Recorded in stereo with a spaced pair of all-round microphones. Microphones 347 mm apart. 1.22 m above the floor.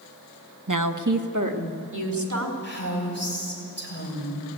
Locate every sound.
0.7 s a woman speaking: 60° right (ahead or behind), 1.0 m; by 2.5 s 55° right (ahead or behind), 3.5 m
2.6 s a woman speaking: 30° left (ahead or behind), 6.5 m